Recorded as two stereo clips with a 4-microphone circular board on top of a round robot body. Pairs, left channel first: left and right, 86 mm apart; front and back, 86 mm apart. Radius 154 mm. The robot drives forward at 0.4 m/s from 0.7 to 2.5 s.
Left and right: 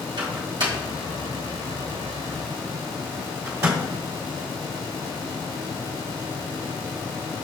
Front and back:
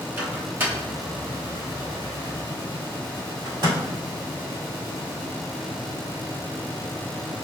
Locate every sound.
0.2 s a microwave: 115° right, 0.9 m; by 3.8 s 140° right, 1.4 m